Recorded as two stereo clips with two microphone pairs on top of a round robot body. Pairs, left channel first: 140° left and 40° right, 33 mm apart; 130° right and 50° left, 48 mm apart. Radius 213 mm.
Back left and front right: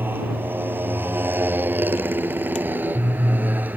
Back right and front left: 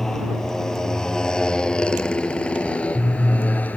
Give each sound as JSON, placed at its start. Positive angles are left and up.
{"t": 0.0, "sound": "a motorcycle", "azimuth_deg": -45}